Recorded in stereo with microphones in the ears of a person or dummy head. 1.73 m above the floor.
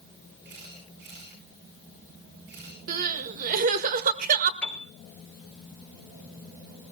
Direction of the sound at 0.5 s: 55° right (ahead or behind).